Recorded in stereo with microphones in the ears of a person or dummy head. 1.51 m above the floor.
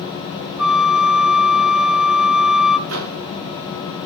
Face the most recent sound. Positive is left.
turn(degrees=-85)